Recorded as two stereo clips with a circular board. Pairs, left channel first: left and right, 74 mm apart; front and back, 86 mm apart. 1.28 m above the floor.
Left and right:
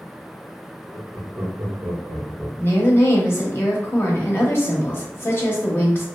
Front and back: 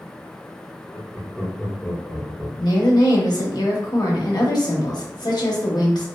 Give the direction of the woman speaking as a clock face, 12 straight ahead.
11 o'clock.